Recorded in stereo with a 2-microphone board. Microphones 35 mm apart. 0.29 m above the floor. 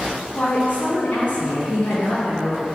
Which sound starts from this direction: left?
A woman speaking, at 0.3 s.